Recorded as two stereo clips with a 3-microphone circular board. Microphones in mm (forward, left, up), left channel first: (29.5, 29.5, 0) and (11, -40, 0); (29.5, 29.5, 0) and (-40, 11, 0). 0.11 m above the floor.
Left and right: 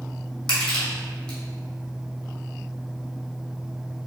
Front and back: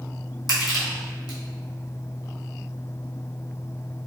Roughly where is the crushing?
Ahead.